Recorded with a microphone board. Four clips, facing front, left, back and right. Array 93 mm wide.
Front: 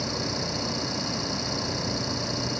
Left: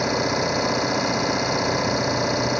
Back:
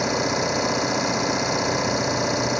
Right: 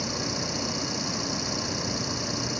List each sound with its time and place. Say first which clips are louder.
0.0 s an engine running: left 10 dB, back 8 dB; 125° left